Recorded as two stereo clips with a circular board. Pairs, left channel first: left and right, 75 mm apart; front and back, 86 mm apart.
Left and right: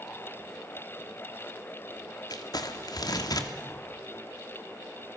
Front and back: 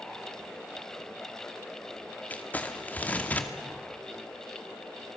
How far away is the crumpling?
About 2.0 m.